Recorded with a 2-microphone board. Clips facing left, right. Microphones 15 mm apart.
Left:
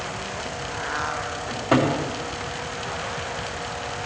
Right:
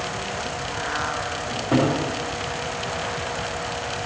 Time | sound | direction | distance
1.5 | a cupboard door | 65° left (ahead or behind) | 3.5 m